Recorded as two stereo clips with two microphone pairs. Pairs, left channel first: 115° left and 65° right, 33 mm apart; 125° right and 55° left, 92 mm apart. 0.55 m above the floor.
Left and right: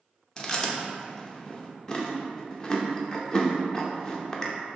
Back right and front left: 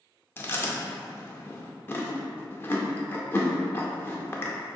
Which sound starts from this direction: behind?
Chewing, at 0.4 s.